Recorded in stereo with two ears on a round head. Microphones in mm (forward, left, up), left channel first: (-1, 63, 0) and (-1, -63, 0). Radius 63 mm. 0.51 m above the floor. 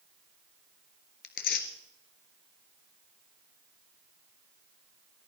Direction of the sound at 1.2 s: 70° left (ahead or behind).